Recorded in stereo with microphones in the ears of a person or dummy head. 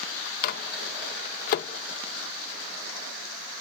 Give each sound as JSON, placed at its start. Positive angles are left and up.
{"t": 0.4, "sound": "a microwave", "side_deg": 50, "distance_m": 0.8}